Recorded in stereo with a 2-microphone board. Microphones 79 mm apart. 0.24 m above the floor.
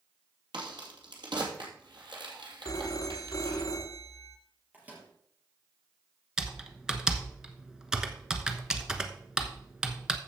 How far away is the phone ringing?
About 1.2 m.